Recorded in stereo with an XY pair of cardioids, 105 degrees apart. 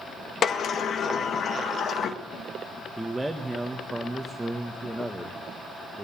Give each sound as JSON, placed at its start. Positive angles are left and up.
{"t": 0.4, "sound": "a sliding door", "azimuth_deg": 50, "distance_m": 1.6}
{"t": 3.0, "sound": "a man speaking", "azimuth_deg": -10, "distance_m": 1.7}